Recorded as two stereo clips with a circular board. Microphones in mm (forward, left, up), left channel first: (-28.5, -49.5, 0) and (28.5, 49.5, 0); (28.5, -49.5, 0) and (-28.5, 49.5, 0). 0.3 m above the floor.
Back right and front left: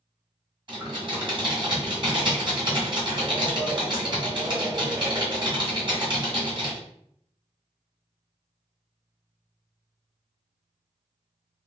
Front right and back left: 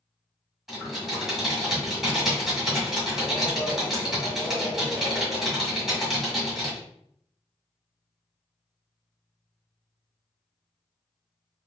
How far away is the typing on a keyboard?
About 1.7 m.